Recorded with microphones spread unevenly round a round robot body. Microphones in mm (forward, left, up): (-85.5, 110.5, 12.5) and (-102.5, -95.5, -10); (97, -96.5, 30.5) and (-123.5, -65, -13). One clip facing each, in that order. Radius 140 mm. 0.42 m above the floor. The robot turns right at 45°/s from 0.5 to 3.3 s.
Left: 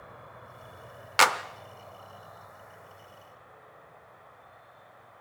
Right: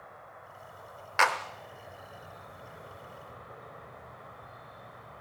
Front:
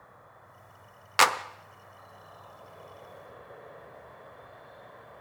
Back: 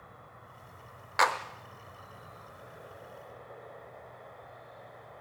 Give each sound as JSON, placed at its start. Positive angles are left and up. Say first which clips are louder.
{"t": 0.0, "sound": "an insect", "louder": "left 2 dB, back 2 dB", "azimuth_deg": 130, "distance_m": 2.0}
{"t": 1.2, "sound": "a clap", "louder": "left 3 dB, front 3 dB", "azimuth_deg": 45, "distance_m": 0.7}